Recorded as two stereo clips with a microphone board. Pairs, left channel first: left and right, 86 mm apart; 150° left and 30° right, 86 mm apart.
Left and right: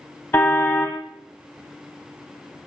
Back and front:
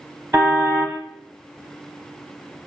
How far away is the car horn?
About 2.5 m.